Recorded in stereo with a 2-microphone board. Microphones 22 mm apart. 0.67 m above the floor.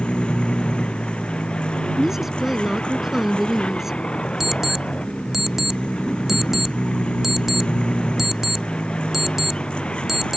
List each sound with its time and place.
0.0 s a vehicle: 40° left (ahead or behind)
2.0 s a woman speaking: 20° right (ahead or behind)
4.4 s an alarm clock: 20° right (ahead or behind)